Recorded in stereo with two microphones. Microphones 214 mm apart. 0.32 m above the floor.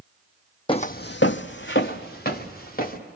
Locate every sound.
0.7 s footsteps: 25° left (ahead or behind), 0.5 m; by 3.0 s 45° left (ahead or behind), 2 m